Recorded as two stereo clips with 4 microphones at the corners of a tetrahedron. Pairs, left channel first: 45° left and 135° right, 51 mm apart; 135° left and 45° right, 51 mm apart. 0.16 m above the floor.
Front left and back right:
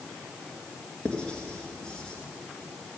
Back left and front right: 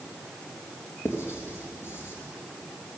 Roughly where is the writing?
Behind left.